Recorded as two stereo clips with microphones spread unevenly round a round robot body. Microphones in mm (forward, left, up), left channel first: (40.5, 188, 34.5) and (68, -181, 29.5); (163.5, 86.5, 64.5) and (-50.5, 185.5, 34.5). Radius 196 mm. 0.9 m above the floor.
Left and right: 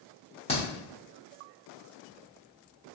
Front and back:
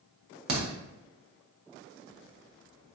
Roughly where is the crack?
Behind.